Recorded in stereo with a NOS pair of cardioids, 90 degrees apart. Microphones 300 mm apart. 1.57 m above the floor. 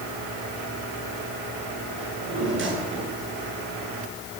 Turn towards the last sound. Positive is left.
turn(degrees=-40)